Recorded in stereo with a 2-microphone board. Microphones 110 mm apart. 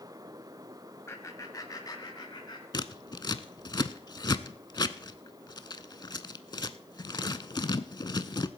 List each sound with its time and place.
1.1 s laughter: 25° left (ahead or behind), 1.1 m; by 2.6 s 40° left (ahead or behind), 2 m
2.7 s scissors: 40° left (ahead or behind), 0.5 m